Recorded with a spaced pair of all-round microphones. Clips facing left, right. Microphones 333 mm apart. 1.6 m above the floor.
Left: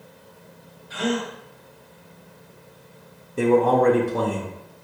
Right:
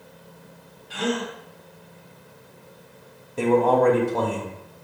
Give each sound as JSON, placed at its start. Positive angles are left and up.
{"t": 0.9, "sound": "a gasp", "side_deg": -40, "distance_m": 1.3}
{"t": 3.4, "sound": "a man speaking", "side_deg": 20, "distance_m": 0.6}